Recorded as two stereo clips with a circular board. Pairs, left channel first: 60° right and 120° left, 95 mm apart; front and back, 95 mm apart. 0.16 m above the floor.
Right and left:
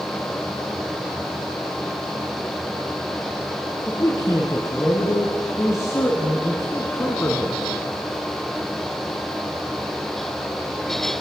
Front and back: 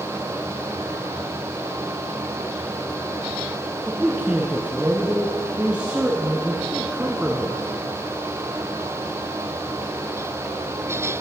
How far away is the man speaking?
About 1.6 m.